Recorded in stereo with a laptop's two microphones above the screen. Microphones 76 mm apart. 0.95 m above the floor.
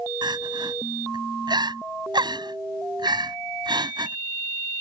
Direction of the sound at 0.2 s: 75° right (ahead or behind).